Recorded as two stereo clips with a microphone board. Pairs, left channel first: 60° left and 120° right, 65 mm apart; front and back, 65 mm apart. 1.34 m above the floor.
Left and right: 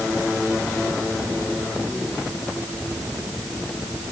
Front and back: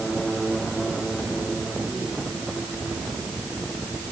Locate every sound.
Only background noise.